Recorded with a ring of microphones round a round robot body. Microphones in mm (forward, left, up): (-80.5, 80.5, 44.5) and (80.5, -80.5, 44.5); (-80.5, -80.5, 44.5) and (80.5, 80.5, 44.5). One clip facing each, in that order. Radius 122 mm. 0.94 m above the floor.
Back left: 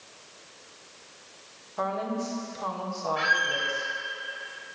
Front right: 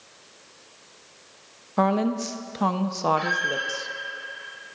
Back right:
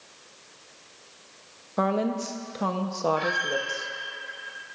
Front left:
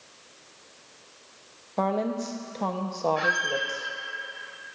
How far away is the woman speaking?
About 0.7 m.